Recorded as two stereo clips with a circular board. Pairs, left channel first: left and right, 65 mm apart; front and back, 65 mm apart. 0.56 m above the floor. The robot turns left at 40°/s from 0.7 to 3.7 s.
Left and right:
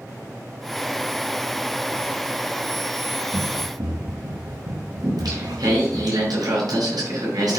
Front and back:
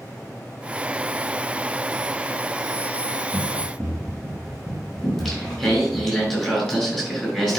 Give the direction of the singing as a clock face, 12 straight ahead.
3 o'clock.